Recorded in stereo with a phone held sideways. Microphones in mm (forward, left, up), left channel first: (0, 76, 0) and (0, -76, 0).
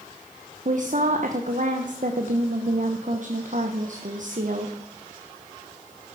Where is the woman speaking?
55° right (ahead or behind), 1.1 m.